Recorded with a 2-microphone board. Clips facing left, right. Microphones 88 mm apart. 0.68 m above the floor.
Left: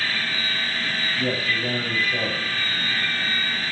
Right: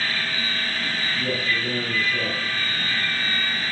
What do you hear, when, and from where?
1.2 s a man speaking: 50° left (ahead or behind), 5.5 m